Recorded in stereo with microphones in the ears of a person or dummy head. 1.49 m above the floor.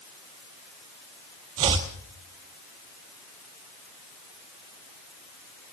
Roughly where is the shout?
No shout in this recording.